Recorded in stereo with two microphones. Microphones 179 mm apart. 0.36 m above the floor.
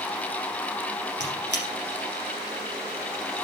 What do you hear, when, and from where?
1.2 s a squeak: 80° right, 3 m